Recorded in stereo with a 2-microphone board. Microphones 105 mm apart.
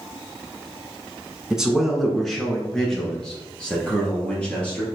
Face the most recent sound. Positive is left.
turn(degrees=10)  # may be behind; listen again after turning